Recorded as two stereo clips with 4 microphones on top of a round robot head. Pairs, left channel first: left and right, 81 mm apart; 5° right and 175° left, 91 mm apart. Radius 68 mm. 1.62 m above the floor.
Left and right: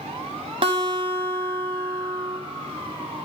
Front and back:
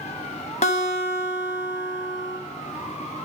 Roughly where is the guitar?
Ahead right.